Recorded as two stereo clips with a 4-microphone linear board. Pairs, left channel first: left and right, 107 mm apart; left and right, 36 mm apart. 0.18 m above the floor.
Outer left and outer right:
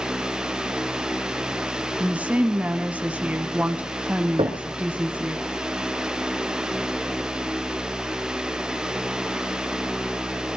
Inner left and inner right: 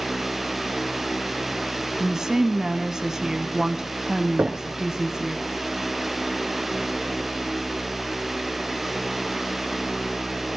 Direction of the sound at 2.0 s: 15° right (ahead or behind).